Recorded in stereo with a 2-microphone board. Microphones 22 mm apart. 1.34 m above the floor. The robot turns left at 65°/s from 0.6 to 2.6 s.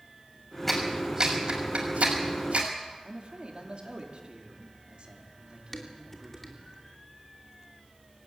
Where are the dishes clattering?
15° left (ahead or behind), 2.5 m.